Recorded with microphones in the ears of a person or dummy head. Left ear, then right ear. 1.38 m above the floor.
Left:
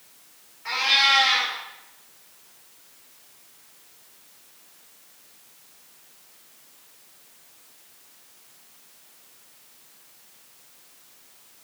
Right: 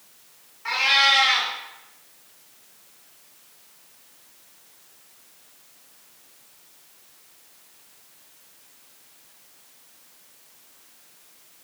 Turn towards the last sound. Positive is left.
turn(degrees=-35)  # may be behind; listen again after turning